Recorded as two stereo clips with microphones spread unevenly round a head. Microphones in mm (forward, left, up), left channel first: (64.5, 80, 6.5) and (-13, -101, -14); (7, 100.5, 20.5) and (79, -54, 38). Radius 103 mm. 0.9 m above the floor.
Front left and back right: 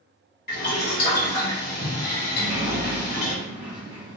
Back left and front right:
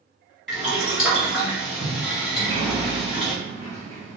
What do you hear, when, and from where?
0.5 s boiling: 30° left, 1.5 m
2.3 s a sliding door: 105° right, 1.0 m